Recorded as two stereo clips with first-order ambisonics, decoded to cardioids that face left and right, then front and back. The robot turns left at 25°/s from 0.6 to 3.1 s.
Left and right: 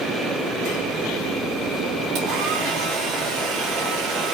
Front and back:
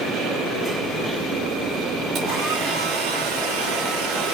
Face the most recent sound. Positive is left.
turn(degrees=-145)